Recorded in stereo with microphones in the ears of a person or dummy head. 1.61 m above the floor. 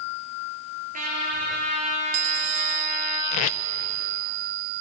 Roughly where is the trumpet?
Right.